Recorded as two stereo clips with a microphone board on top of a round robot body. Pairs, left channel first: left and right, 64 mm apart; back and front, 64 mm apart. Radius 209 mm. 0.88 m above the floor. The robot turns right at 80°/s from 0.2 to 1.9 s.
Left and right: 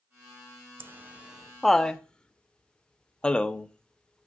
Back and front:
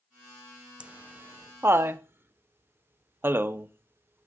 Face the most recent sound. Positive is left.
turn(degrees=25)